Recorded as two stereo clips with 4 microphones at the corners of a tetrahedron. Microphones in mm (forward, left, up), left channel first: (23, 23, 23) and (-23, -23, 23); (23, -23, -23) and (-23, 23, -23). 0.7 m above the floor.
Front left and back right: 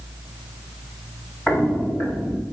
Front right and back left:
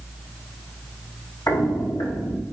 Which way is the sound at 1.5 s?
15° right.